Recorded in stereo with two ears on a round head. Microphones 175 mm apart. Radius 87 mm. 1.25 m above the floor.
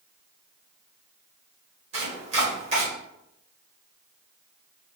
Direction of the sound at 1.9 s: 35° right (ahead or behind).